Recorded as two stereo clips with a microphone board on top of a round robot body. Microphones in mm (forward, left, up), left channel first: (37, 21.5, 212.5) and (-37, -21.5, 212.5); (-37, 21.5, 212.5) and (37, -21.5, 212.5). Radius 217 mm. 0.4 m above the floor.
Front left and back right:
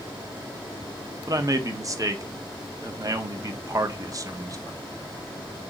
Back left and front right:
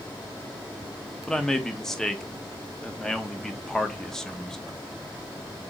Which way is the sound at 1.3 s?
125° right.